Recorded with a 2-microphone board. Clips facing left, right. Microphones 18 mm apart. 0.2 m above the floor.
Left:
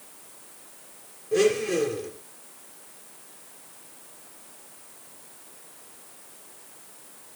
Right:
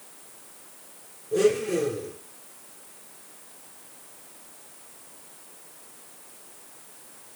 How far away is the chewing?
I don't hear chewing.